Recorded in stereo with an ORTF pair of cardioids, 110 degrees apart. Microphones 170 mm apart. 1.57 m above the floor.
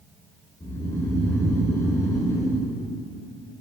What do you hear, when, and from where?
0.6 s snoring: 20° left, 3.5 m